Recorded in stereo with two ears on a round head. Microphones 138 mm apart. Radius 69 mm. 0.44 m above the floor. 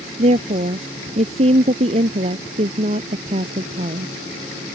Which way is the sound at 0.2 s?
40° right (ahead or behind).